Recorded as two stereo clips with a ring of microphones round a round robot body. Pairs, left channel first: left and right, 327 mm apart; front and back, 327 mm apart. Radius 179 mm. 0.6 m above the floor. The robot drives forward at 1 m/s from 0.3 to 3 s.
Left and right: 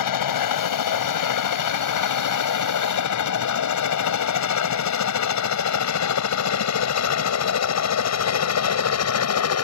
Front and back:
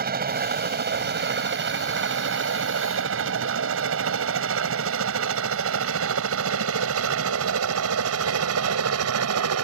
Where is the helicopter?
115° left; by 9.7 s 130° left.